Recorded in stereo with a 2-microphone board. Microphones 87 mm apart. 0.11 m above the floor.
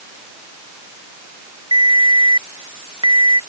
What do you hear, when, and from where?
1.7 s a ringtone: 60° right (ahead or behind)